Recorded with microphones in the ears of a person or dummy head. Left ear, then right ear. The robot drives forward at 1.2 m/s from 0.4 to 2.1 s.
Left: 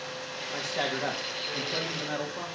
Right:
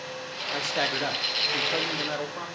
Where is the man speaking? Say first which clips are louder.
Right 4 dB; 70° right (ahead or behind), 3 m; by 2.5 s 45° right (ahead or behind), 4 m.